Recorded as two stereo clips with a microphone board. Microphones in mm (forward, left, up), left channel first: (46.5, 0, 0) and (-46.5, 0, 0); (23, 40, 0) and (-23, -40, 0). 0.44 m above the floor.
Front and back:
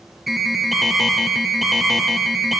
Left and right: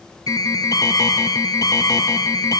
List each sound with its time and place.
0.3 s an alarm: 95° left, 0.8 m